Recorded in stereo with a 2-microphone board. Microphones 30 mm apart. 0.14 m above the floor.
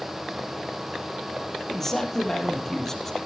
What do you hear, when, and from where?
1.7 s a man speaking: 10° left (ahead or behind), 4.5 m